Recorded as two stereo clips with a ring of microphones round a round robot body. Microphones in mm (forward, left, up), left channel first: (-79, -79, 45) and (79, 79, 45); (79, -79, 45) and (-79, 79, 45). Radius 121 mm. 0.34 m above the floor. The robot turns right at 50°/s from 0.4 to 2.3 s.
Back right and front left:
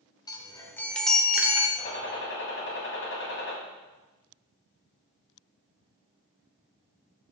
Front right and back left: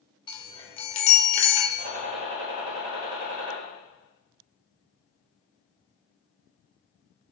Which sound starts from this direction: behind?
A gunshot, at 1.8 s.